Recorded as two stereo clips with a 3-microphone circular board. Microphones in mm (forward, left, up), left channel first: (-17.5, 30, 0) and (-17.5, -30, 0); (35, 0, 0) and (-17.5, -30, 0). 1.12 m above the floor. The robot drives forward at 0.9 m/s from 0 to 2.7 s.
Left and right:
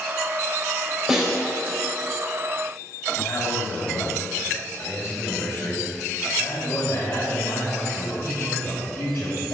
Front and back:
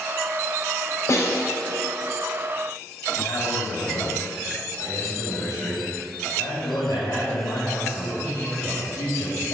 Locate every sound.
1.1 s a snare drum: 10° right, 3.5 m
3.2 s a man speaking: 50° left, 5.5 m